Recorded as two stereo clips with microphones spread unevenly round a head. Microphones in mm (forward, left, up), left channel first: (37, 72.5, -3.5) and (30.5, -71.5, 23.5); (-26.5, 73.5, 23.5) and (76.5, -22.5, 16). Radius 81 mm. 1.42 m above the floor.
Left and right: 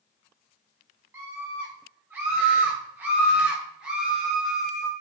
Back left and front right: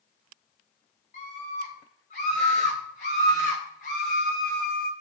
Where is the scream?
170° right, 6.5 m; by 4.9 s 170° left, 2 m.